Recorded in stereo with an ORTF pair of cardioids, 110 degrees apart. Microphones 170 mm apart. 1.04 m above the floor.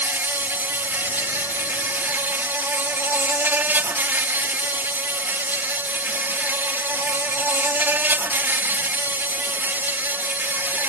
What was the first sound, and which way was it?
An insect, 10° right.